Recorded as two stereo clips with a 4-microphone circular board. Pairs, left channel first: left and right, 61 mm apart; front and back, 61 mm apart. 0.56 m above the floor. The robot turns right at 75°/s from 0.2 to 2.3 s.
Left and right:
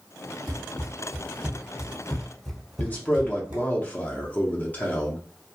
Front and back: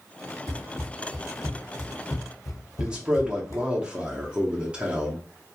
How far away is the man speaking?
About 0.8 m.